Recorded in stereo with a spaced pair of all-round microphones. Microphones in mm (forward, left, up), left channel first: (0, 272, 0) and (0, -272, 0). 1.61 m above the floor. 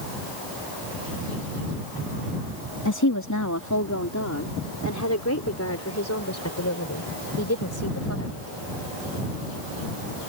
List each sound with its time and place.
2.9 s a woman speaking: 30° left (ahead or behind); by 8.6 s 25° left (ahead or behind)